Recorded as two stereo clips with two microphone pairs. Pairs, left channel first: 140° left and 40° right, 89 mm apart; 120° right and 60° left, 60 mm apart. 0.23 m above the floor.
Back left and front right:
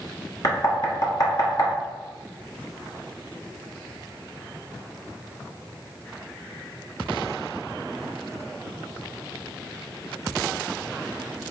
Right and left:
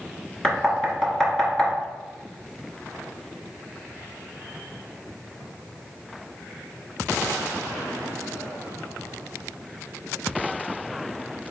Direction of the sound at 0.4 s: 165° left.